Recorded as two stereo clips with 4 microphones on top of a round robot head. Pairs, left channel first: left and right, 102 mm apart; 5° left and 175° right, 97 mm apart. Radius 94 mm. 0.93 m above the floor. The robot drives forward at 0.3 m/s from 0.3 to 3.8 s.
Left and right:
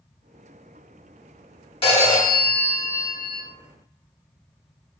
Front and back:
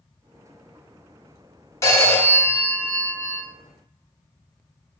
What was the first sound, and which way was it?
A phone ringing, 65° left.